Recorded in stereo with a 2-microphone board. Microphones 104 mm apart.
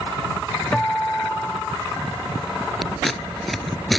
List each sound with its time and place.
0.7 s a guitar: 10° left (ahead or behind)
2.8 s scissors: centre (ahead or behind)